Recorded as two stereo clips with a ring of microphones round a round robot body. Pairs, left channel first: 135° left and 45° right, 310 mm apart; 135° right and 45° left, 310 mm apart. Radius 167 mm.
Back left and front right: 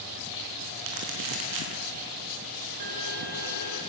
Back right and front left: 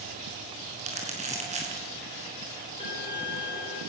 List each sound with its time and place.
0.8 s crumpling: 25° right, 6 m
2.8 s a violin: 60° right, 10 m